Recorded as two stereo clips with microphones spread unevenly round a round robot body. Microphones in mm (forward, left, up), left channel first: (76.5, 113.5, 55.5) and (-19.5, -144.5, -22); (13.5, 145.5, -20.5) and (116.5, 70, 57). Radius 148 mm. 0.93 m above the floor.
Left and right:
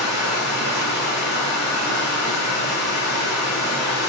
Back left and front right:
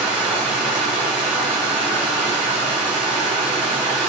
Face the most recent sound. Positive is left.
turn(degrees=45)